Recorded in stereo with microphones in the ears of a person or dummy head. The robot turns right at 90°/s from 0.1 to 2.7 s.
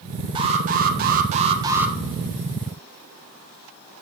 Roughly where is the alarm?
Behind right.